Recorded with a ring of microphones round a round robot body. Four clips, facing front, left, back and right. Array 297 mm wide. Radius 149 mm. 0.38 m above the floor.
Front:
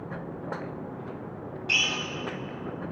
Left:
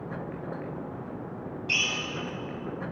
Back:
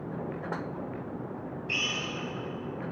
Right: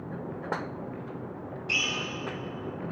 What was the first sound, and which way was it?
A drill, 5° left.